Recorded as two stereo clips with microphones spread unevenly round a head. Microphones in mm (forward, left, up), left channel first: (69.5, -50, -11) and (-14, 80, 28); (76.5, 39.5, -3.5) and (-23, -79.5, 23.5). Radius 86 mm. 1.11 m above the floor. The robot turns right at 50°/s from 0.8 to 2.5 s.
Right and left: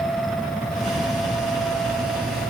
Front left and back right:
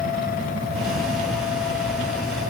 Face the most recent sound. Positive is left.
No sound to turn to.